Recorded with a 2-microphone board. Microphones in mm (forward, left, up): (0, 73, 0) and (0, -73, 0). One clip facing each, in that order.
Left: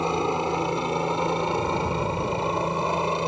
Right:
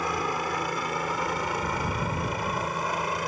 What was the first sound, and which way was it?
A helicopter, 25° left (ahead or behind).